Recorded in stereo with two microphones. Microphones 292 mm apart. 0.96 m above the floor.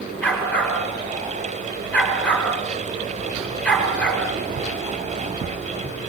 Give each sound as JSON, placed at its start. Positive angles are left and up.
{"t": 0.2, "sound": "a dog barking", "side_deg": 5, "distance_m": 7.0}